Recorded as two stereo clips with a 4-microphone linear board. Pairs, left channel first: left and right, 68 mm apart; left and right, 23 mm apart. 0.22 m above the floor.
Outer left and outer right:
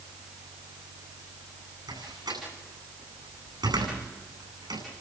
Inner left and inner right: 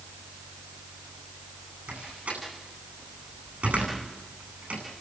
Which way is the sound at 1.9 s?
80° right.